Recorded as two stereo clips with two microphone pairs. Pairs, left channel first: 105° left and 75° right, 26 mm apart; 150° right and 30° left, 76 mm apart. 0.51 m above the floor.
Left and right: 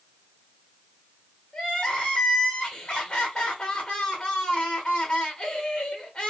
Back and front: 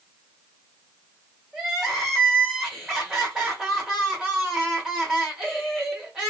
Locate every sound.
1.5 s crying: 110° left, 1.2 m